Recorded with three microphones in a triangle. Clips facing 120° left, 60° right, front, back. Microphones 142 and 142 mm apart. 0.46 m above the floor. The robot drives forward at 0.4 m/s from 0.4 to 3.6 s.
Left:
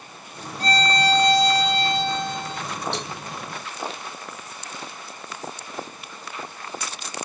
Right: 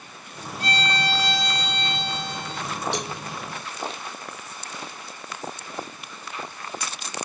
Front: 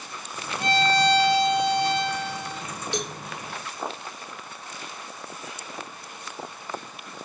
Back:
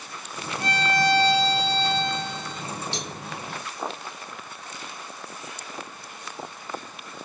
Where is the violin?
65° left, 3.5 m; by 2.6 s 80° left, 3.5 m.